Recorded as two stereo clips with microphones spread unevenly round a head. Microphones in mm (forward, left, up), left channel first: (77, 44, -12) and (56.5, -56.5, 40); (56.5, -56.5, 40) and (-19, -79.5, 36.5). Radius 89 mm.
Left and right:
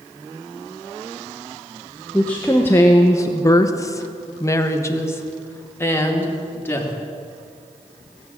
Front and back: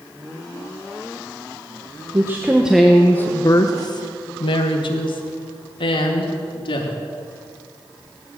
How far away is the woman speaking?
About 1.0 m.